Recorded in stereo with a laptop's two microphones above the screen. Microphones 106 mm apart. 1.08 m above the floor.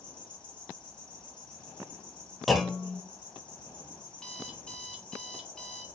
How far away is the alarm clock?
About 0.6 m.